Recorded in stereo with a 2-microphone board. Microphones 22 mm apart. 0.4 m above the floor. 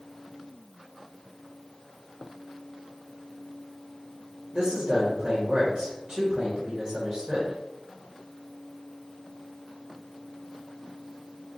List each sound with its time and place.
4.5 s a man speaking: 45° right (ahead or behind), 1.4 m